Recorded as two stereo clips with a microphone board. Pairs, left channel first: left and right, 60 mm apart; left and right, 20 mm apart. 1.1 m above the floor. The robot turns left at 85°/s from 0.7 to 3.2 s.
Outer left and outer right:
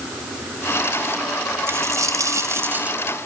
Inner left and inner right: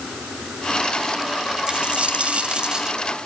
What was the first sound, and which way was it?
A dropped coin, 50° right.